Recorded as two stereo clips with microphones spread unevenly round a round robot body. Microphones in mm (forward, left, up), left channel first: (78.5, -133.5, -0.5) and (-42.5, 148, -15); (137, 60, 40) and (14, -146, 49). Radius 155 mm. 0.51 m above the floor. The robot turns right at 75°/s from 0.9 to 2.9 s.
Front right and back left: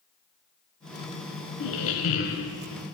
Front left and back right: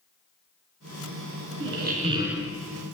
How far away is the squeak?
About 0.8 m.